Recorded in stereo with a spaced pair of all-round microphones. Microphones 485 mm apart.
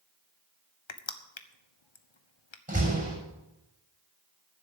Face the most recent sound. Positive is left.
turn(degrees=-15)  # may be behind; listen again after turning